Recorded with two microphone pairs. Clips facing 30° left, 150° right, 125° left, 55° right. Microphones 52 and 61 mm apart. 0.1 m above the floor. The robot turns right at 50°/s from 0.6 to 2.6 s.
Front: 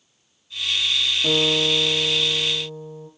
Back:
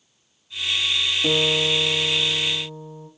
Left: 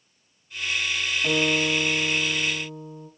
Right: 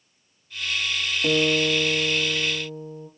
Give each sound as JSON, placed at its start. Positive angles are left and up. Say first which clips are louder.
{"t": 1.2, "sound": "a guitar", "louder": "even, right 3 dB", "azimuth_deg": -75, "distance_m": 0.7}